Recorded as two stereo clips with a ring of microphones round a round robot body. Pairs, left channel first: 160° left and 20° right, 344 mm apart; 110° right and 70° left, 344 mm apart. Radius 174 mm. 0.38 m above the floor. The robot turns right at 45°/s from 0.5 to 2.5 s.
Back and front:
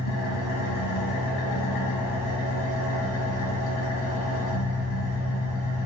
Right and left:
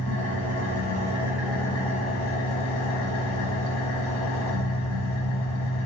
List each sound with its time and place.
0.0 s an engine running: 110° left, 1.5 m; by 5.9 s 160° right, 1.5 m